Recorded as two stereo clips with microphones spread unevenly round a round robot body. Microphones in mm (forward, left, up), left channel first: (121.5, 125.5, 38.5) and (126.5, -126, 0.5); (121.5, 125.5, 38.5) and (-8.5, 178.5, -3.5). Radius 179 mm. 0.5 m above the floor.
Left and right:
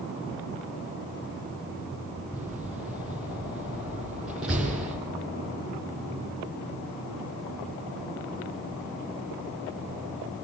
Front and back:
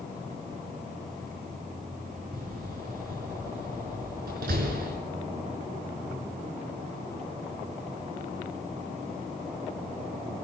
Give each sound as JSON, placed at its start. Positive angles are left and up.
{"t": 2.3, "sound": "a door slam", "azimuth_deg": -175, "distance_m": 5.5}